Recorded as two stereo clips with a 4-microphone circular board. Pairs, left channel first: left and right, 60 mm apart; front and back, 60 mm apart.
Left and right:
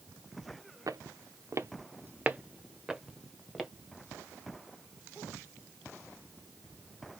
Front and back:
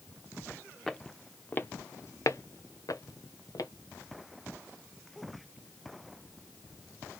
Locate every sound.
0.9 s footsteps: 85° right, 0.7 m; by 3.7 s 5° left, 1.3 m